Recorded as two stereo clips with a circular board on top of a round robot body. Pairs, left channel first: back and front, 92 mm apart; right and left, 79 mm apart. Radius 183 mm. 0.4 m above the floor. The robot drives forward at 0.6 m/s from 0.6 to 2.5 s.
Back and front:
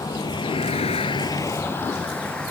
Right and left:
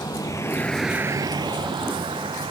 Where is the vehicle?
130° right; by 2.5 s 100° left.